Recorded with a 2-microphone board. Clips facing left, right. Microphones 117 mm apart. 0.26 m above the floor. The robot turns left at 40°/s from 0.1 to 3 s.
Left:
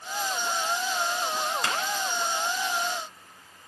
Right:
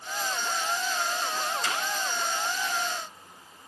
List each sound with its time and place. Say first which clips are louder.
1.6 s a clap: left 2 dB; 70° left (ahead or behind), 3 m